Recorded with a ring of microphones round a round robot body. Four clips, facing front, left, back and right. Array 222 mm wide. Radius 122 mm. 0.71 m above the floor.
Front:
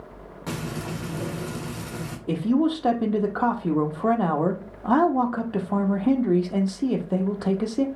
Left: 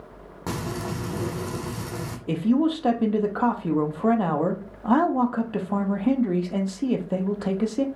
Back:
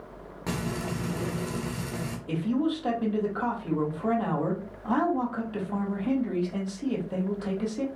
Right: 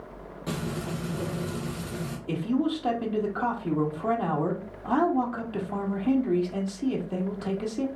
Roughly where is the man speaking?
Ahead left.